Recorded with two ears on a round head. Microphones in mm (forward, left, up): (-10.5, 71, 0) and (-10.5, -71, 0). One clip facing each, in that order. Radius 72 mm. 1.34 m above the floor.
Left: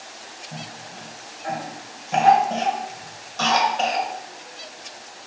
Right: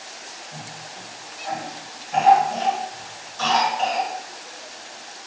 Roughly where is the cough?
Left.